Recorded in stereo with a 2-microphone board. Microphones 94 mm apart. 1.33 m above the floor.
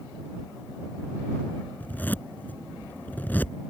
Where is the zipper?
20° left (ahead or behind).